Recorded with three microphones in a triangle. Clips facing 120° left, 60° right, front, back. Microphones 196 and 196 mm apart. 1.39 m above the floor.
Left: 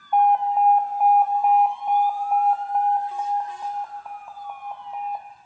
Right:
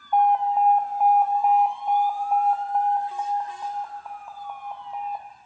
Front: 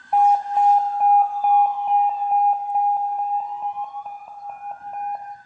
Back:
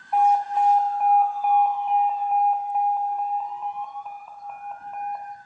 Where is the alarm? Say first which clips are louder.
Left 1 dB, front 3 dB; 40° left, 0.5 m.